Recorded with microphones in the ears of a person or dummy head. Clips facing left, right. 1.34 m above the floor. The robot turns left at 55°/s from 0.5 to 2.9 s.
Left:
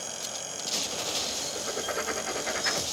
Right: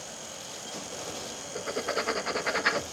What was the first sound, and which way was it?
Writing, 35° right.